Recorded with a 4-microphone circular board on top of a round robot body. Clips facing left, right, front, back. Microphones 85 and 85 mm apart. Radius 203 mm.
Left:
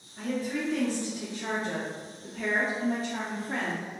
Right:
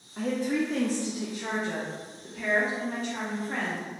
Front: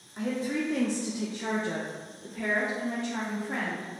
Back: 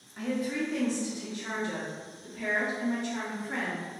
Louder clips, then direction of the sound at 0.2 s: Right 4 dB, front 1 dB; 75° right.